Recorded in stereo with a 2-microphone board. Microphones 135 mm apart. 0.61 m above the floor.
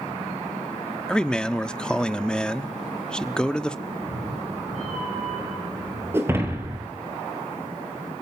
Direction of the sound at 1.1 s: 5° left (ahead or behind).